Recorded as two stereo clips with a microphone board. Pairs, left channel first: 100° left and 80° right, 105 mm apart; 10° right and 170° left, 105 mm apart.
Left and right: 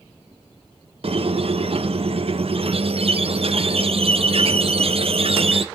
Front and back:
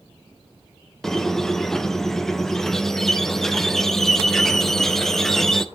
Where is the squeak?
100° right, 0.7 m.